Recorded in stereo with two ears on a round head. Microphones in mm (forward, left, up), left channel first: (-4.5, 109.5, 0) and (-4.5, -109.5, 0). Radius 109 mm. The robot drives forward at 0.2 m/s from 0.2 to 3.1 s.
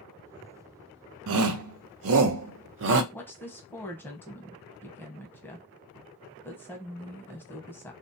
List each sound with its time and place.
1.3 s a shout: 60° right (ahead or behind), 0.5 m; by 3.0 s 50° right (ahead or behind), 0.6 m
3.1 s a woman speaking: 10° left (ahead or behind), 0.7 m